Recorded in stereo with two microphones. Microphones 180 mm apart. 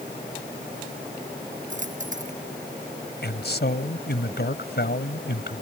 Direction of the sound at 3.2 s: 70° left (ahead or behind).